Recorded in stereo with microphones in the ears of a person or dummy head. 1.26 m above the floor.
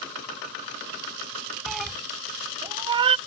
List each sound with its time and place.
1.7 s a cat meowing: 5° right (ahead or behind); by 3.2 s 40° right (ahead or behind)